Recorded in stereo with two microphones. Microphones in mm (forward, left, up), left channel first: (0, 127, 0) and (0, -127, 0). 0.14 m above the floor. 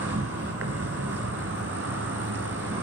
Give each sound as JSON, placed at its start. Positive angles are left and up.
{"t": 0.0, "sound": "an insect", "side_deg": -60, "distance_m": 0.8}